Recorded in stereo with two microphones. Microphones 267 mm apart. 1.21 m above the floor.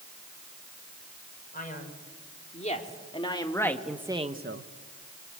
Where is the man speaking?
35° left (ahead or behind), 5 m; by 4.7 s 60° right (ahead or behind), 1.1 m.